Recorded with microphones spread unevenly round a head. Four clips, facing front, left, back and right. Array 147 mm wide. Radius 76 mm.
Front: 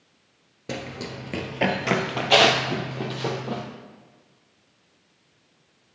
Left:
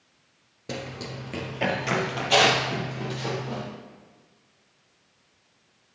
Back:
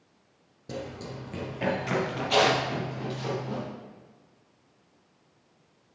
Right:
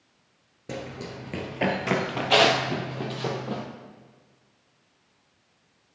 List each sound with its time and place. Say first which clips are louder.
0.7 s running footsteps: even, front 4 dB; 10° left, 1.1 m; by 3.6 s 30° right, 2.5 m